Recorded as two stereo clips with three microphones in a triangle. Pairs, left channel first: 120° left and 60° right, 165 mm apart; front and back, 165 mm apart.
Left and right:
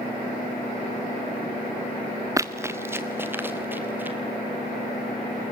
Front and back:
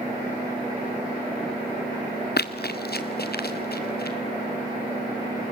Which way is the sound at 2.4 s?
10° left.